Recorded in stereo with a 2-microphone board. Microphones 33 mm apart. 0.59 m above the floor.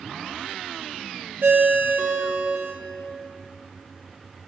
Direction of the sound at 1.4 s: 70° right (ahead or behind).